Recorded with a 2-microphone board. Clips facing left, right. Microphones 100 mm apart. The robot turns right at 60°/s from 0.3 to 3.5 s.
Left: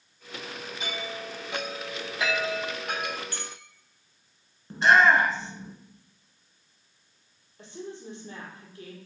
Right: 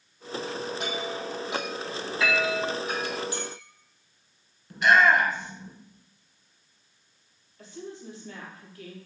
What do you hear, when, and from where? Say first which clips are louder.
0.8 s a chime: right 4 dB; 60° right (ahead or behind), 3 m; by 3.2 s 70° left (ahead or behind), 3 m
3.3 s a clink: right 6 dB; 15° right (ahead or behind), 2.5 m; by 3.6 s centre (ahead or behind), 2.5 m
4.7 s a shout: left 1 dB; 30° left (ahead or behind), 1.4 m
7.6 s a woman speaking: left 1 dB; 25° left (ahead or behind), 4 m